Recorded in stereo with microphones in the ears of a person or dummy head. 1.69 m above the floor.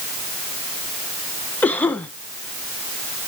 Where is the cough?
5° left (ahead or behind), 1.3 m.